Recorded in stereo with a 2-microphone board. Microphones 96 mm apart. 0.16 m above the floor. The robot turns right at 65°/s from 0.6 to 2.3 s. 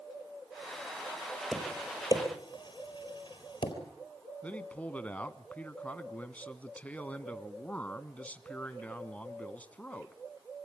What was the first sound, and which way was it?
Tapping, 5° left (ahead or behind).